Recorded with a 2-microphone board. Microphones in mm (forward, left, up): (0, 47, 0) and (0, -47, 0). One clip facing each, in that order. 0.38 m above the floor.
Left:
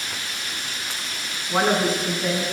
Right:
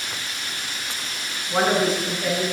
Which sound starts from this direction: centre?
A woman speaking, at 1.5 s.